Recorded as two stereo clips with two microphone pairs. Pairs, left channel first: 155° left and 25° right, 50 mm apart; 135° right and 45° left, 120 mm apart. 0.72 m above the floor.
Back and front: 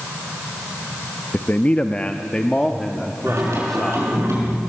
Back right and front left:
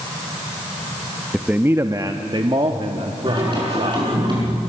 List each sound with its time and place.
1.3 s a man speaking: 135° left, 0.6 m; by 4.1 s 70° left, 1.7 m
3.3 s singing: 5° right, 6 m